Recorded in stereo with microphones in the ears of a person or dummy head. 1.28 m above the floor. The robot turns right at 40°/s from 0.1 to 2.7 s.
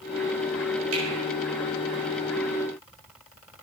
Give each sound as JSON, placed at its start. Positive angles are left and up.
{"t": 0.9, "sound": "a finger snap", "side_deg": -85, "distance_m": 6.0}